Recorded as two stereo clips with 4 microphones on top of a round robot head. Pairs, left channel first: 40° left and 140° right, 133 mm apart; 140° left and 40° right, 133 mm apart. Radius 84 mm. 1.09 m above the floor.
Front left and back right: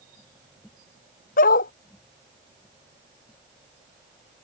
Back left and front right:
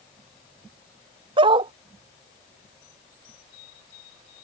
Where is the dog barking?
15° left.